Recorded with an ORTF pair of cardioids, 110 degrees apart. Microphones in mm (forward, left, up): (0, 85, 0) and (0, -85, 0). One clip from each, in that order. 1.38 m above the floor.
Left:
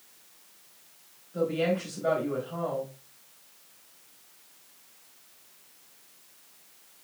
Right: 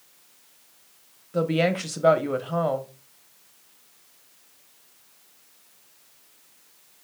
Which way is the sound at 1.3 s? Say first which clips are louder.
Right 4 dB; 60° right.